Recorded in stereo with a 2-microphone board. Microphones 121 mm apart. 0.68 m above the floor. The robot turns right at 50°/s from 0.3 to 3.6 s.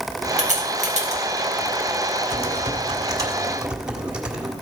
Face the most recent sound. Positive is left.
turn(degrees=-10)